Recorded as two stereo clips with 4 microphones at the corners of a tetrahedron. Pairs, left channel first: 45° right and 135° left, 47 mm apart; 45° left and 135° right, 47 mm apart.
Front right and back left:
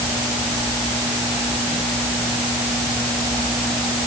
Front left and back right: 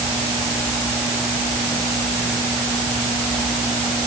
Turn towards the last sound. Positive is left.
No sound to turn to.